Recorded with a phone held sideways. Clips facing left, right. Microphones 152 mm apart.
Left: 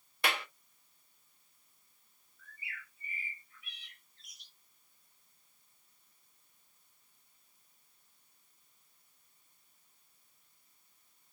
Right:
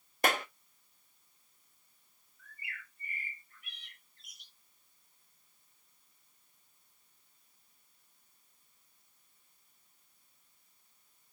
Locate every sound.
0.2 s a clap: 45° right (ahead or behind), 0.6 m
2.4 s a bird: 50° right (ahead or behind), 4 m